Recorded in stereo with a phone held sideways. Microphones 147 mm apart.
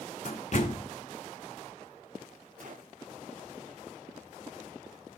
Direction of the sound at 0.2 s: 55° left (ahead or behind).